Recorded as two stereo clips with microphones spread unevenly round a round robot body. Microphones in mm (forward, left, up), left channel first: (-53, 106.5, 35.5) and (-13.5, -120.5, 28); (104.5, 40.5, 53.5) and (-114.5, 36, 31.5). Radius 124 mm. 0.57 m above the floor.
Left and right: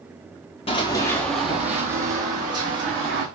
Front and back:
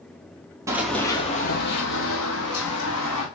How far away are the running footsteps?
About 0.6 m.